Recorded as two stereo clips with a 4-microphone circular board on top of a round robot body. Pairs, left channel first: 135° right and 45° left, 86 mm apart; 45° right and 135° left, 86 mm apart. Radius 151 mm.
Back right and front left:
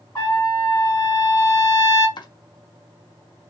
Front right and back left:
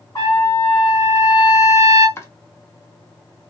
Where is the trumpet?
90° right, 0.9 m.